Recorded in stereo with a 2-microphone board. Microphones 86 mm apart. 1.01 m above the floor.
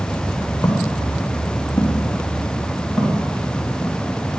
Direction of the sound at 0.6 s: 35° left (ahead or behind).